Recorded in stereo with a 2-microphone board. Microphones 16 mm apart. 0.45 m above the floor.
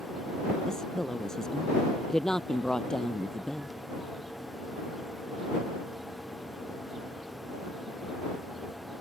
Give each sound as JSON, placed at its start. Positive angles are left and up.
{"t": 0.7, "sound": "a woman speaking", "side_deg": 40}